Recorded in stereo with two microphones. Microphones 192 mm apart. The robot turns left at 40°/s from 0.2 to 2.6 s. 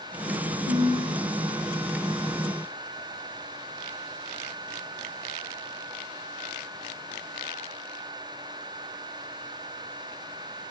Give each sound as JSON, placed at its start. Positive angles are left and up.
{"t": 0.7, "sound": "a ringtone", "side_deg": 55, "distance_m": 2.5}